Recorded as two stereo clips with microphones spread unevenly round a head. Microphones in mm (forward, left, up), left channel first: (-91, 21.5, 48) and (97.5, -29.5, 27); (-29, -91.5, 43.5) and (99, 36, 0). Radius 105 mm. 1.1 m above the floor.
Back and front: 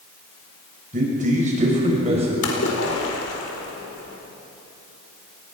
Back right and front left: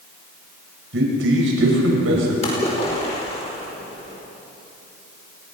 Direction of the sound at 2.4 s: 160° left.